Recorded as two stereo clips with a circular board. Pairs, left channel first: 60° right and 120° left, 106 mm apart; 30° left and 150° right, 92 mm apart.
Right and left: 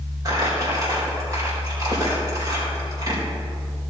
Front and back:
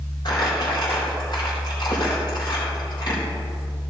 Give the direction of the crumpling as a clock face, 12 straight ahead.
10 o'clock.